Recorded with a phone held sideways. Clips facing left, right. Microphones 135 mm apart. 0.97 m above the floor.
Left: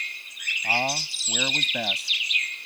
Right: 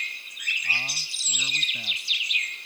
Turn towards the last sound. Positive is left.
turn(degrees=85)